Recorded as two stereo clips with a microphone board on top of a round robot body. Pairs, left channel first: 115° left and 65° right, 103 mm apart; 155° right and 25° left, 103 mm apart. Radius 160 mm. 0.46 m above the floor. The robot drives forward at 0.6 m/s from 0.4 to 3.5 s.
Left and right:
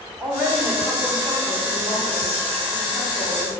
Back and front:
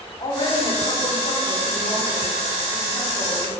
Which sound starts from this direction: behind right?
A woman speaking, at 0.2 s.